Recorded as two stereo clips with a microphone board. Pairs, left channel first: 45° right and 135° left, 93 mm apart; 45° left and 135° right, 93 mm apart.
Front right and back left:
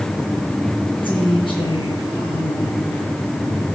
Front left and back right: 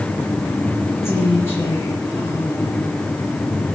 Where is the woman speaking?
15° right, 7.5 m.